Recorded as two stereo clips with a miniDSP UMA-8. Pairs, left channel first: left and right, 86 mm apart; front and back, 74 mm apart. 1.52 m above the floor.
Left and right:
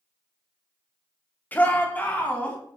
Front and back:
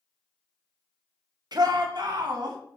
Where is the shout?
160° left, 1.6 m.